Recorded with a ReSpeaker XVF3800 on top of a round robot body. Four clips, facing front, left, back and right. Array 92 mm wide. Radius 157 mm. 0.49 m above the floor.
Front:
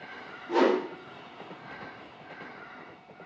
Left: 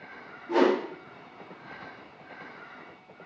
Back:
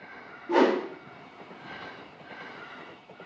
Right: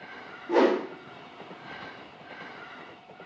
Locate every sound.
0.5 s a whoosh: 170° right, 1.4 m